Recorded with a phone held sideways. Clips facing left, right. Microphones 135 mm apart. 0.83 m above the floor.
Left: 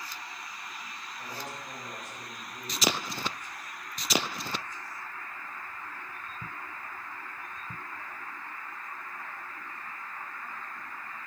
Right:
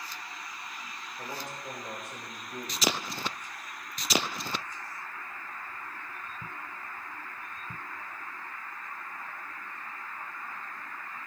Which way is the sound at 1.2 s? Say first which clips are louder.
Right 2 dB; 70° right (ahead or behind).